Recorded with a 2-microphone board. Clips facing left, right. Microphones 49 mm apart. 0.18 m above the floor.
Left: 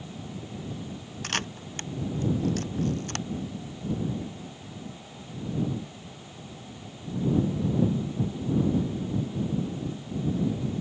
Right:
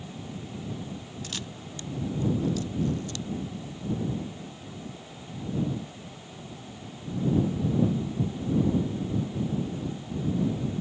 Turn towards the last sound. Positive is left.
turn(degrees=55)  # may be behind; listen again after turning